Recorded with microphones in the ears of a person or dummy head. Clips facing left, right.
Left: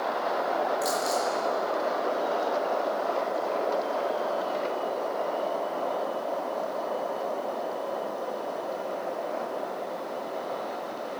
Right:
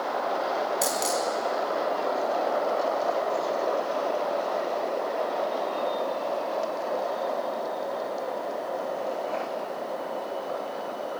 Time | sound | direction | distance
0.8 | a dropped coin | 45° right (ahead or behind) | 5 m